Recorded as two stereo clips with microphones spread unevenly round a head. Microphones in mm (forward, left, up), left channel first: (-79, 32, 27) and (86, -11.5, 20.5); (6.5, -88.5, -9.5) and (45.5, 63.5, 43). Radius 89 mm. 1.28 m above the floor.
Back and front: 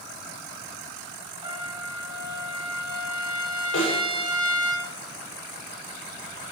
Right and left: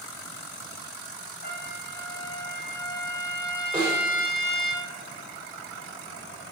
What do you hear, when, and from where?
1.4 s a trumpet: 80° right, 3 m
3.7 s a snare drum: 155° left, 7 m